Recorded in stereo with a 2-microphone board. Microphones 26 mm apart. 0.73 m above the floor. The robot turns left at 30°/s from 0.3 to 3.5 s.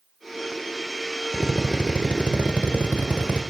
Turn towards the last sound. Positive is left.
turn(degrees=-90)